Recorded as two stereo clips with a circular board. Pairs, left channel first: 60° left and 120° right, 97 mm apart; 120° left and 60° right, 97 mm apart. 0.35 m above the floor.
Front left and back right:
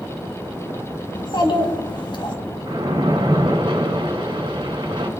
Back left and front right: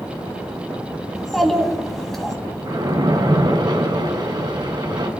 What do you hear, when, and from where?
1.1 s a child speaking: 35° left, 2.5 m
2.7 s a splash: 95° right, 2 m